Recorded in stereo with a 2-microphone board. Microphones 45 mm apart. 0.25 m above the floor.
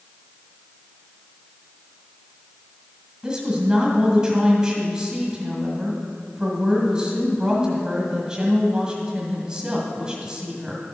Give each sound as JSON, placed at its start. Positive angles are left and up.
{"t": 3.2, "sound": "a woman speaking", "side_deg": -20, "distance_m": 1.8}